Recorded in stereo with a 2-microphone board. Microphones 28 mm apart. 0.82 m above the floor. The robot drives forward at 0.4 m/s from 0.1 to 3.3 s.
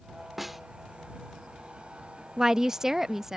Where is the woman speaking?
25° right (ahead or behind); by 3.4 s 15° right (ahead or behind).